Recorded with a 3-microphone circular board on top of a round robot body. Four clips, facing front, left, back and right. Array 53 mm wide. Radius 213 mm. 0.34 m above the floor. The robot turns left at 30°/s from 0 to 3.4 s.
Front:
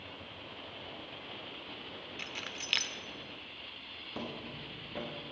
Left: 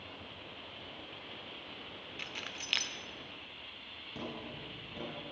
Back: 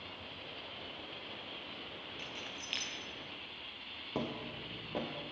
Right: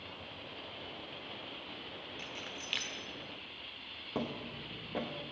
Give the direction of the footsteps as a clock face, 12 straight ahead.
5 o'clock.